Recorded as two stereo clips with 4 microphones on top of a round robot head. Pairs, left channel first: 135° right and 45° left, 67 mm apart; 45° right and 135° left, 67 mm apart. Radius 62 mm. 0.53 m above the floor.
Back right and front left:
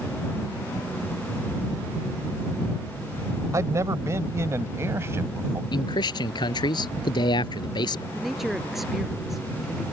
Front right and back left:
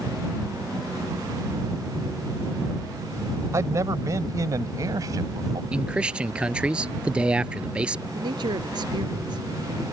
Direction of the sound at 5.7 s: 150° right.